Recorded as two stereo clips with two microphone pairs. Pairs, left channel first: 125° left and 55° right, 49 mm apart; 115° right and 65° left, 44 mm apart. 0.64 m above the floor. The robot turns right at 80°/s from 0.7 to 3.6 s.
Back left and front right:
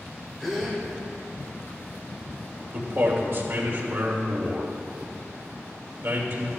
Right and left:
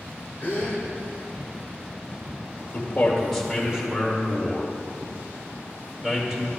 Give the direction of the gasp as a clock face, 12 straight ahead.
5 o'clock.